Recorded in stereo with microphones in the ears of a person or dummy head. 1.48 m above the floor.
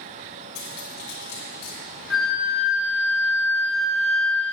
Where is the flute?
5° left (ahead or behind), 1.0 m.